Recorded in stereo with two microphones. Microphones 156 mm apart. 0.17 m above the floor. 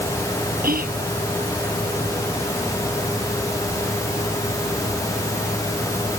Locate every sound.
0.6 s whispering: 70° right (ahead or behind)